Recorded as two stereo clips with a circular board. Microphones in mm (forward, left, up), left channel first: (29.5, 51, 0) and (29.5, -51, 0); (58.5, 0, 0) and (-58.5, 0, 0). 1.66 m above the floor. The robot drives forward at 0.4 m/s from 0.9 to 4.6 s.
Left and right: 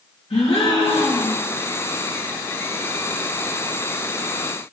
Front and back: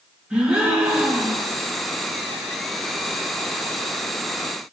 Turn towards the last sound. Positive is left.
turn(degrees=130)